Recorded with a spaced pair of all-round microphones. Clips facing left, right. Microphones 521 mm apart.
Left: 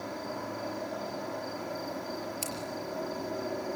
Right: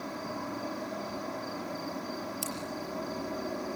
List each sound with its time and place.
0.0 s an insect: 25° right (ahead or behind), 4 m
2.4 s scissors: 45° left (ahead or behind), 4.5 m